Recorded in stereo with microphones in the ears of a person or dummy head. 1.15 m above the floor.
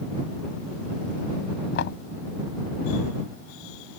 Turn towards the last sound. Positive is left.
turn(degrees=65)  # may be behind; listen again after turning